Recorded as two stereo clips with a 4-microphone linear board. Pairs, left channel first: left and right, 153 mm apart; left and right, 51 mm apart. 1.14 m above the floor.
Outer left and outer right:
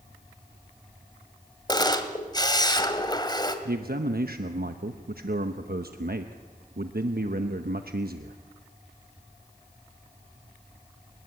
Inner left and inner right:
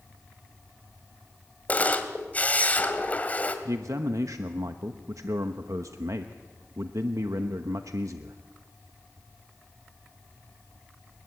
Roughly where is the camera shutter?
Left.